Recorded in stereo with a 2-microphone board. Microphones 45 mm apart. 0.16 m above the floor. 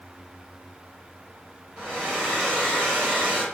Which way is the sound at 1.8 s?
15° right (ahead or behind).